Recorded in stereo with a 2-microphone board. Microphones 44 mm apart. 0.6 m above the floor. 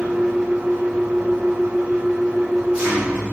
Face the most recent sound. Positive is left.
turn(degrees=-30)  # may be behind; listen again after turning